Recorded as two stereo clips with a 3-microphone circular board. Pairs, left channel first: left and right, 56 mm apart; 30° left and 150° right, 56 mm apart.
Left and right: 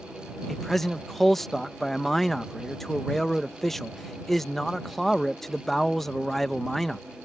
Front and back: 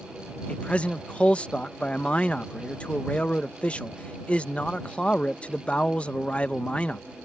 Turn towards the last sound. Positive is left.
turn(degrees=15)